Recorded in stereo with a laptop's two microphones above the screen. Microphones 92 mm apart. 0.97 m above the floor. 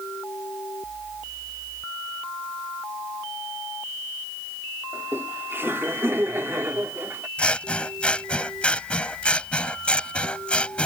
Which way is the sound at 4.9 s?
25° right (ahead or behind).